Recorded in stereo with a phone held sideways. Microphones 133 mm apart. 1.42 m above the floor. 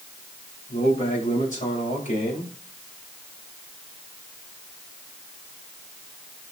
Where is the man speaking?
55° left (ahead or behind), 6.5 m.